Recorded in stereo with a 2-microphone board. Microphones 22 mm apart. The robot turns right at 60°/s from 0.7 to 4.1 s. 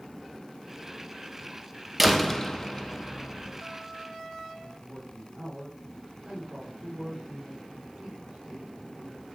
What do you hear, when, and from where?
2.0 s a door slam: 10° right, 1.3 m; by 3.6 s 85° left, 1.3 m
4.5 s a man speaking: 80° right, 4.5 m